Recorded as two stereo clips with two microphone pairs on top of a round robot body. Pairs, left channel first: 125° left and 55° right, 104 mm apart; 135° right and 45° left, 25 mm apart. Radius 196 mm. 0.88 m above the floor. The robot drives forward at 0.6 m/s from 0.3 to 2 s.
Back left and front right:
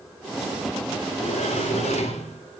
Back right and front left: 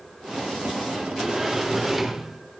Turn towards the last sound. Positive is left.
turn(degrees=125)